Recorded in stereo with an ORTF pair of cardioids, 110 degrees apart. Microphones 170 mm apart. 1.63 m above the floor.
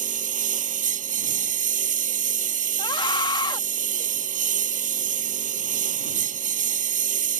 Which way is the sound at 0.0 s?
50° right.